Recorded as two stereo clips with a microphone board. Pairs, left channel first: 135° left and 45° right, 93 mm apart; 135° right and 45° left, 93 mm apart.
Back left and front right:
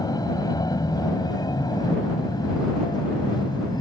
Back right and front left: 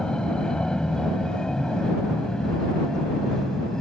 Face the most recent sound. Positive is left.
turn(degrees=140)